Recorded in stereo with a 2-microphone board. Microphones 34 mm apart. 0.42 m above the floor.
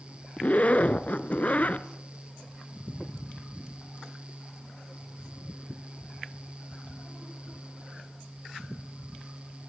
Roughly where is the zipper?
Left.